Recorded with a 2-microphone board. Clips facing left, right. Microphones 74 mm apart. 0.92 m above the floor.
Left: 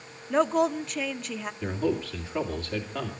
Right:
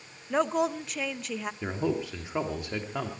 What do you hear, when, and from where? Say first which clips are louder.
0.3 s a woman speaking: left 3 dB; centre (ahead or behind), 0.8 m
1.6 s a man speaking: left 3 dB; 15° right (ahead or behind), 2.5 m